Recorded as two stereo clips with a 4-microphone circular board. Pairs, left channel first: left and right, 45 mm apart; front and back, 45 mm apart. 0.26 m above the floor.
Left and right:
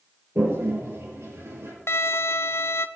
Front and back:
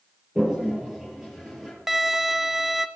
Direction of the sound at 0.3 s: 100° right.